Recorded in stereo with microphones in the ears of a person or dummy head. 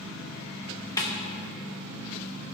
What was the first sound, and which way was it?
A snare drum, 20° left (ahead or behind).